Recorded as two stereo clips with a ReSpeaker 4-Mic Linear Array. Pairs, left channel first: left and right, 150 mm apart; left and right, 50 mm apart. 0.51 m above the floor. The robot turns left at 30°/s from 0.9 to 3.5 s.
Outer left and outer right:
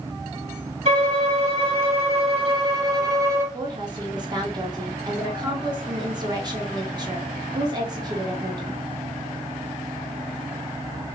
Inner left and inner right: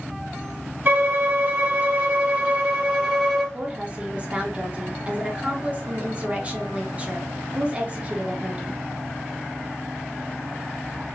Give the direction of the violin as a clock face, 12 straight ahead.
3 o'clock.